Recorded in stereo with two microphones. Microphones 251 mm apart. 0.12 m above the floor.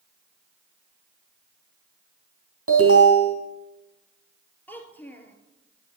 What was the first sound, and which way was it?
An alarm, 65° right (ahead or behind).